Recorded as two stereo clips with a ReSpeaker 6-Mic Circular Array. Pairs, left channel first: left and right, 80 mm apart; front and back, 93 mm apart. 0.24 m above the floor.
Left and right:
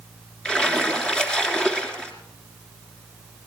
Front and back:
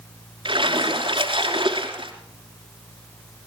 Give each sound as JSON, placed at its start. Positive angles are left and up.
{"t": 0.5, "sound": "a splash", "azimuth_deg": 170, "distance_m": 3.0}